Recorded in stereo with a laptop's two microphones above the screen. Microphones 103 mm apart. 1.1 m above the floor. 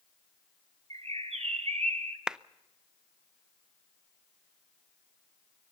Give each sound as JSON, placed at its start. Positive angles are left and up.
{"t": 0.9, "sound": "a bird", "side_deg": -90, "distance_m": 1.7}
{"t": 2.3, "sound": "a clap", "side_deg": -5, "distance_m": 0.6}